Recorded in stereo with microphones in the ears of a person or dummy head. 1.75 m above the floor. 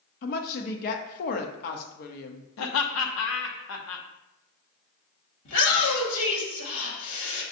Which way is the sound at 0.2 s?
50° left (ahead or behind).